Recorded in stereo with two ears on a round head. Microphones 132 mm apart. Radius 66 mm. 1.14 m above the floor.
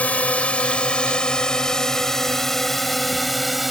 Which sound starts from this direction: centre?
A drone, at 0.0 s.